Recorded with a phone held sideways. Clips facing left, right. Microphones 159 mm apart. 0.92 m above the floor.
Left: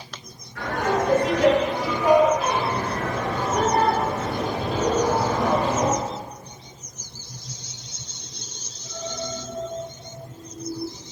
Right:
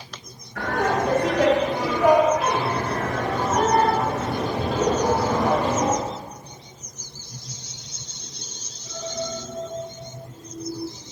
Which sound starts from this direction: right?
Laughter, at 0.6 s.